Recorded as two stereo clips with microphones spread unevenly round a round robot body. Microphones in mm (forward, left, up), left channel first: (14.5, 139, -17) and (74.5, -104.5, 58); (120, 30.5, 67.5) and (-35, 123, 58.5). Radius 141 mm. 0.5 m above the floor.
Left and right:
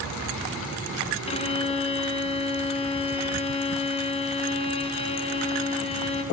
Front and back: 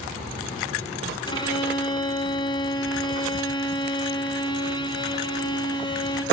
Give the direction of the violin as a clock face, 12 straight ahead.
11 o'clock.